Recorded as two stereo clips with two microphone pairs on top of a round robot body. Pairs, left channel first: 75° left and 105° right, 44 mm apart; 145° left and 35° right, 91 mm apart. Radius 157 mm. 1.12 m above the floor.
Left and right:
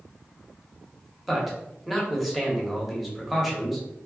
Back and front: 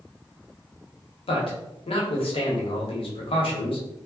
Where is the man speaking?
165° left, 1.0 m.